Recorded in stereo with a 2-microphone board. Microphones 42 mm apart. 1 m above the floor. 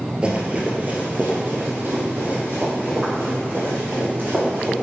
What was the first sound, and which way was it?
Running footsteps, 25° right (ahead or behind).